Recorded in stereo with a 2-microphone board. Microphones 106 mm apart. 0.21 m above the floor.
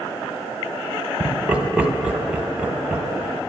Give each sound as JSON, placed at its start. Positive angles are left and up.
{"t": 1.2, "sound": "laughter", "side_deg": -10, "distance_m": 1.0}